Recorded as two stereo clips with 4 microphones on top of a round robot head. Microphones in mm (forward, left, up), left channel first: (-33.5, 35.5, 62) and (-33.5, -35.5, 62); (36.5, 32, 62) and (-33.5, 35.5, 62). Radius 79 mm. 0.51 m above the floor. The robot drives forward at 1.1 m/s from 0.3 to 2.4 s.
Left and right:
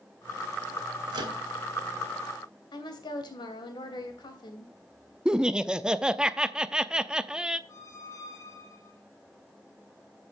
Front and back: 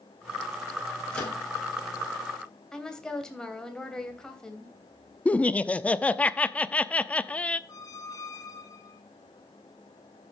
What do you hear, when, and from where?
1.1 s a microwave: 80° right, 3 m; by 1.4 s 85° right, 3 m
2.7 s a woman speaking: 75° left, 3 m
5.2 s laughter: 30° right, 0.7 m
7.7 s a squeak: 35° left, 1.3 m